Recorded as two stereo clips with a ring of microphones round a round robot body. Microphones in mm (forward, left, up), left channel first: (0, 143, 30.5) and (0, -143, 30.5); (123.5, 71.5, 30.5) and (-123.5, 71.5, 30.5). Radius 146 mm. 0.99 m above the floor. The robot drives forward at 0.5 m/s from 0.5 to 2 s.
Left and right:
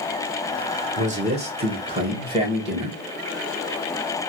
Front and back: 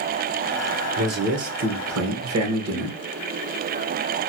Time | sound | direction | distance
1.0 | a man speaking | 145° right | 0.8 m